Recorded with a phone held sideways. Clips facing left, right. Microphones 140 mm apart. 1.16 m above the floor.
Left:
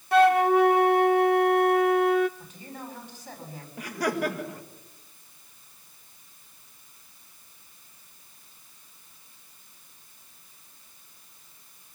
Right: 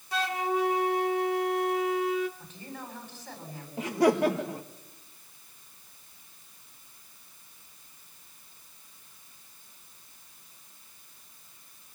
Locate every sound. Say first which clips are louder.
0.1 s a flute: left 11 dB; 60° left (ahead or behind), 0.6 m
2.4 s a man speaking: left 1 dB; 10° left (ahead or behind), 7.5 m
3.8 s laughter: right 5 dB; 25° right (ahead or behind), 1.5 m